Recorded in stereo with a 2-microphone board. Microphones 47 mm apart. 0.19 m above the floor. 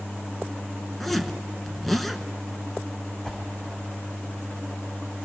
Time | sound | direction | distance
1.0 | a zipper | centre (ahead or behind) | 1.0 m
3.2 | a whoosh | 20° left (ahead or behind) | 6 m